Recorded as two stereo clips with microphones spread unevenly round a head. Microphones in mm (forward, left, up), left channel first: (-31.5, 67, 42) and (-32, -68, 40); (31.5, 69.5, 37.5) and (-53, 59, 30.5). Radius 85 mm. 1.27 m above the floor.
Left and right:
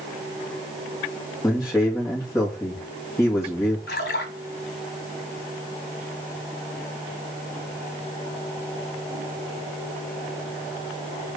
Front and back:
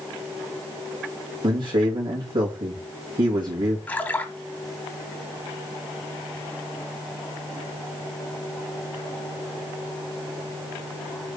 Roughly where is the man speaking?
Behind.